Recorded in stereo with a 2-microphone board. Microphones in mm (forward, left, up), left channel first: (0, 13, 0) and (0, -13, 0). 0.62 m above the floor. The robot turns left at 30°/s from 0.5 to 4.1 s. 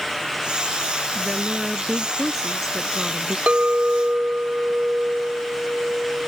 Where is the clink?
65° right (ahead or behind); by 6.3 s 80° right.